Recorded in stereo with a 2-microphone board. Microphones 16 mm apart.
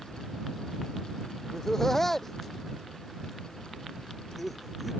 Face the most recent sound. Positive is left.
turn(degrees=-5)  # may be behind; listen again after turning